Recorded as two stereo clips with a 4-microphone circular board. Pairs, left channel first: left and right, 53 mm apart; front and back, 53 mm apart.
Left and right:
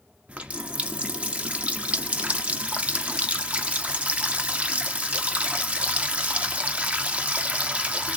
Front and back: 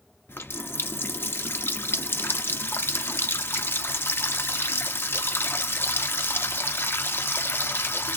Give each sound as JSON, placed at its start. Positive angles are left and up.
{"t": 0.3, "sound": "a running tap", "azimuth_deg": -30, "distance_m": 0.6}